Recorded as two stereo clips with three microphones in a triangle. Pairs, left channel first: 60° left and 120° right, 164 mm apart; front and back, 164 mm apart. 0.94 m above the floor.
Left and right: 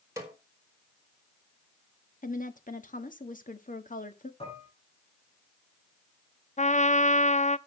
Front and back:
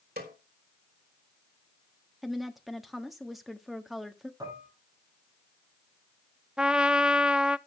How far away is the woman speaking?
About 1.5 m.